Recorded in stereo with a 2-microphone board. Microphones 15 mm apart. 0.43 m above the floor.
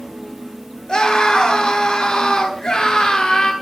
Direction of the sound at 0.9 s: 80° left.